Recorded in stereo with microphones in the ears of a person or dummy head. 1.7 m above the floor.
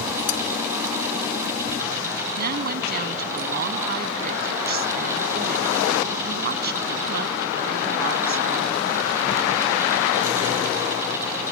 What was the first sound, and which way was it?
Cutlery clinking, 70° left (ahead or behind).